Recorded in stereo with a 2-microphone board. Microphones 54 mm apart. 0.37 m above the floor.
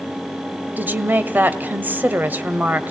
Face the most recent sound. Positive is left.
turn(degrees=-35)  # may be behind; listen again after turning